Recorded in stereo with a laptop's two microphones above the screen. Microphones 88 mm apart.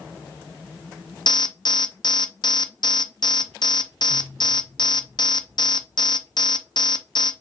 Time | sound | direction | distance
1.3 | an alarm | 55° left (ahead or behind) | 0.5 m